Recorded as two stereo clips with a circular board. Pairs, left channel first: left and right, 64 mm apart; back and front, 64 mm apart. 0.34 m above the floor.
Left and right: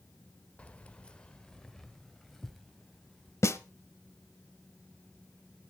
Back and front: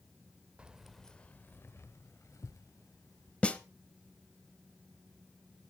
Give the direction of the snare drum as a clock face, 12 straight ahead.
8 o'clock.